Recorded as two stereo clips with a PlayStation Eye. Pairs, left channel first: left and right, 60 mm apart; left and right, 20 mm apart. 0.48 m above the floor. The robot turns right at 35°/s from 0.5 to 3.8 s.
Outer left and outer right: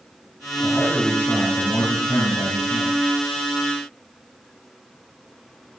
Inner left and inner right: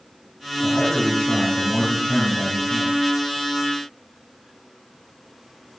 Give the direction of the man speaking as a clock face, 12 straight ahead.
12 o'clock.